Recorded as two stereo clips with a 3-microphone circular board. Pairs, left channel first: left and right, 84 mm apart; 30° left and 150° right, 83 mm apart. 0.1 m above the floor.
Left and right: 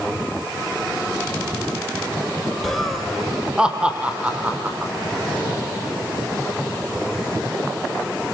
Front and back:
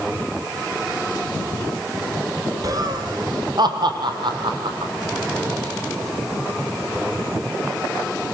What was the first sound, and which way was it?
Laughter, 175° left.